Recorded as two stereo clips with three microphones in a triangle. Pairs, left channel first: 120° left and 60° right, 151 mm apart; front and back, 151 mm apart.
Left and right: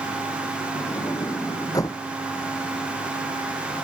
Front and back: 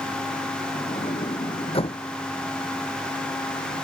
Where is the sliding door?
50° left.